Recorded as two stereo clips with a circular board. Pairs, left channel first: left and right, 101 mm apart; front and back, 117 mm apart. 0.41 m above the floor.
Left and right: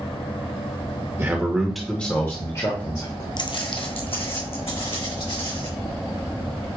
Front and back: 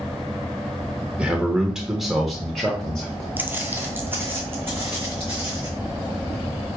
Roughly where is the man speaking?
Behind right.